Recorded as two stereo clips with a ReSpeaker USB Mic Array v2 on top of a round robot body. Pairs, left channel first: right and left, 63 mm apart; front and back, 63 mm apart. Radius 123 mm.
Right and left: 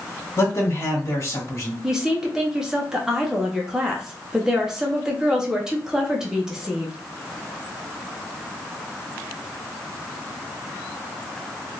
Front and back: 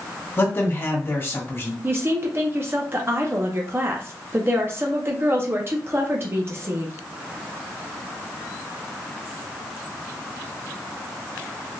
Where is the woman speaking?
165° left, 0.8 m.